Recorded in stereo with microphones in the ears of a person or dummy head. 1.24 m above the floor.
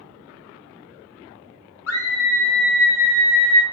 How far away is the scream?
About 0.8 m.